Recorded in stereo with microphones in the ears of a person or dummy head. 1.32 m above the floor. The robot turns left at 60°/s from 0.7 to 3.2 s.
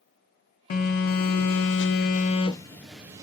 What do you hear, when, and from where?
0.7 s a phone buzzing: 130° left, 0.5 m; by 3.2 s 20° right, 0.5 m